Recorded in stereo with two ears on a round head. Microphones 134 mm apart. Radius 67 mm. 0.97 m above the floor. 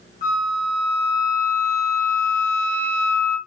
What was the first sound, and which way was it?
A flute, 50° left (ahead or behind).